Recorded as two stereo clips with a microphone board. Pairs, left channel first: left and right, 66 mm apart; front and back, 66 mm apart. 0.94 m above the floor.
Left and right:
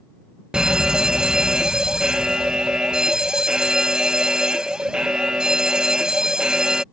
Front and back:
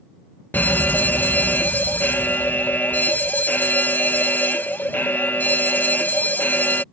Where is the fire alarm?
20° right.